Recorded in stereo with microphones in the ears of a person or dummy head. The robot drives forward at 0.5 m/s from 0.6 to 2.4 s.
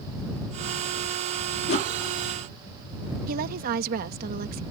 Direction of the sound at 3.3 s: 50° right (ahead or behind).